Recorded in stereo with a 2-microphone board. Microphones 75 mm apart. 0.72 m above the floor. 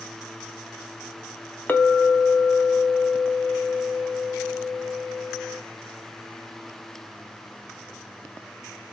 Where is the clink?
25° left (ahead or behind), 0.5 m.